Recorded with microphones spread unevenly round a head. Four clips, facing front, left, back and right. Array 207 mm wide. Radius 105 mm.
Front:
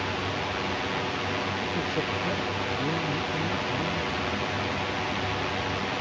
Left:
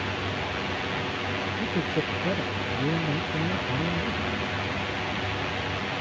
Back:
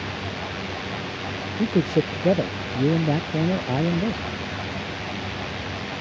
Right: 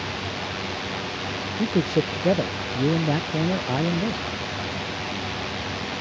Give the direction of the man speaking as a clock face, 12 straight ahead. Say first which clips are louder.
Right 8 dB, back 8 dB; 5 o'clock.